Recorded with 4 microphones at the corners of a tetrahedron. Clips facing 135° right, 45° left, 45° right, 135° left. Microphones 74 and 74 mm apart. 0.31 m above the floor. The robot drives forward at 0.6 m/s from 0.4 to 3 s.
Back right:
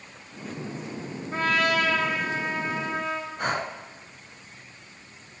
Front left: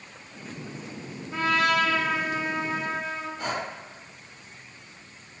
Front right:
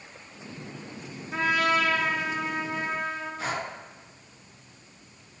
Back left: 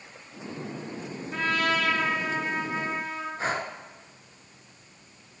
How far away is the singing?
I don't hear singing.